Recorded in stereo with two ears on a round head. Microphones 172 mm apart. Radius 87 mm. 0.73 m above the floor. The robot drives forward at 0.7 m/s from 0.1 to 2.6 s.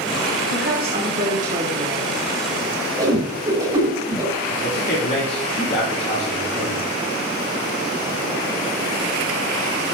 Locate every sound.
0.5 s a woman speaking: 55° right (ahead or behind), 1.4 m; by 2.2 s 35° right (ahead or behind), 2 m
3.0 s a whoosh: 20° right (ahead or behind), 2.5 m
4.5 s a man speaking: 55° left (ahead or behind), 2.5 m